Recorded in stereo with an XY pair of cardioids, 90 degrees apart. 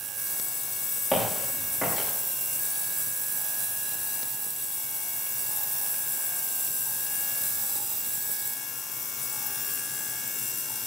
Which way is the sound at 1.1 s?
10° right.